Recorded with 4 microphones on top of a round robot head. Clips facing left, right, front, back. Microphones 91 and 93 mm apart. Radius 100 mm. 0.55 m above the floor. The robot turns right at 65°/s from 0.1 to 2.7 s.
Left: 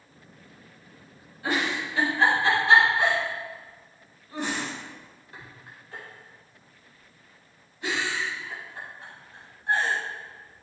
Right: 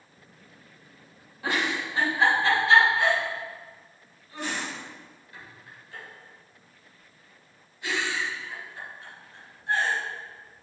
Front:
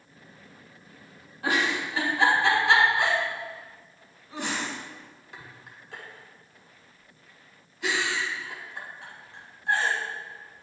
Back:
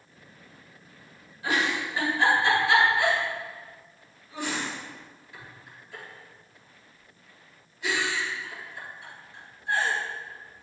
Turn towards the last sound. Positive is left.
turn(degrees=30)